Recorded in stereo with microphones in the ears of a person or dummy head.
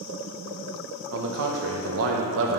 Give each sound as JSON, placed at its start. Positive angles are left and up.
{"t": 1.1, "sound": "a man speaking", "side_deg": -70, "distance_m": 1.0}